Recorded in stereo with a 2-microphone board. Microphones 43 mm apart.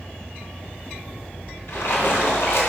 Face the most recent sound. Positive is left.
turn(degrees=65)  # may be behind; listen again after turning